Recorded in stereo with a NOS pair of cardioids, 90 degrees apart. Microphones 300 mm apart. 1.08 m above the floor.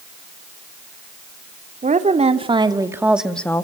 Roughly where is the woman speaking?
Ahead right.